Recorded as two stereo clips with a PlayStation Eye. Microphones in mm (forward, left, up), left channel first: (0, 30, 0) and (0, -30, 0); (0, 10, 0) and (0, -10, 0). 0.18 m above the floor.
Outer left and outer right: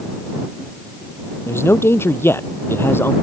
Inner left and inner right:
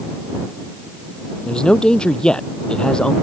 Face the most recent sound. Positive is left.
turn(degrees=40)  # may be behind; listen again after turning